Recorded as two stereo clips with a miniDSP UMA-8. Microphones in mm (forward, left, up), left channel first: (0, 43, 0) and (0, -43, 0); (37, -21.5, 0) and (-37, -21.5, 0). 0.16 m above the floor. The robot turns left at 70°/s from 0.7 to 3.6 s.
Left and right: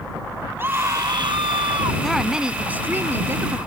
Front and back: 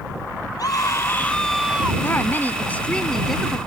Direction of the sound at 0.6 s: 30° right.